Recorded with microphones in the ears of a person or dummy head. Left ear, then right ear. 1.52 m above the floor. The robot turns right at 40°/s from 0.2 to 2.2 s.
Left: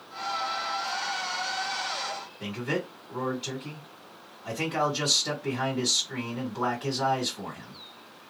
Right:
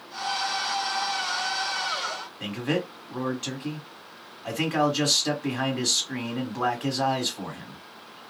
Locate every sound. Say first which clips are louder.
2.4 s a man speaking: right 3 dB; 30° right (ahead or behind), 1.3 m